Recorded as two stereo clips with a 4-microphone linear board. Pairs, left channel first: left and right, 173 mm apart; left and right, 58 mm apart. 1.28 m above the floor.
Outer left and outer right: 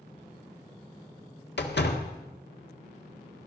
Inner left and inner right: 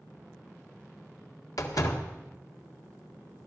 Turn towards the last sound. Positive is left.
turn(degrees=75)  # may be behind; listen again after turning